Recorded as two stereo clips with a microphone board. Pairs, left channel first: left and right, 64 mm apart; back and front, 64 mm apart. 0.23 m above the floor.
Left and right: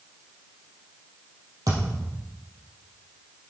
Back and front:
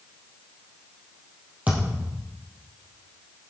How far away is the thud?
About 3.5 m.